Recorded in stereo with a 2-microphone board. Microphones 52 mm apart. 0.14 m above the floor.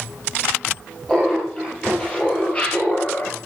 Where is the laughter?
15° left (ahead or behind), 5.5 m; by 3.4 s 35° left (ahead or behind), 3.5 m.